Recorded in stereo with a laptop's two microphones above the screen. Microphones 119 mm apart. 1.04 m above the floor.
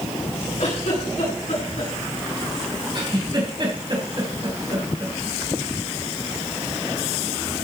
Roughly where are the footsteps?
No footsteps in this recording.